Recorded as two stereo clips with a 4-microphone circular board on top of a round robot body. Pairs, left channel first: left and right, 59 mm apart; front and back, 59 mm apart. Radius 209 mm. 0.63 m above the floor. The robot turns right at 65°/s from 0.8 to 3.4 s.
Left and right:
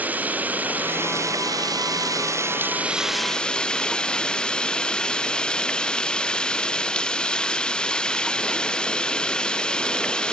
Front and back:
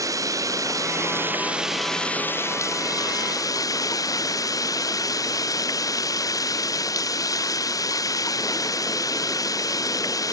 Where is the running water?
155° right; by 10.3 s 15° left.